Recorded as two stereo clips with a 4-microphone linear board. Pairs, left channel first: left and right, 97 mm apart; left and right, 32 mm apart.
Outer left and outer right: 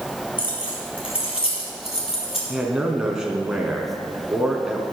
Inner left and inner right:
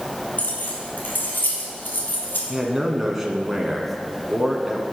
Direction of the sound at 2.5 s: 10° right (ahead or behind).